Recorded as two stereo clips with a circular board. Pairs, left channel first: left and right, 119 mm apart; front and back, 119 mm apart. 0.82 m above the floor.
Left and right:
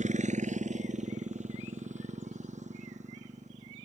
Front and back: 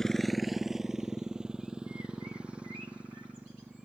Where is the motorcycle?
85° right; by 3.9 s 100° right.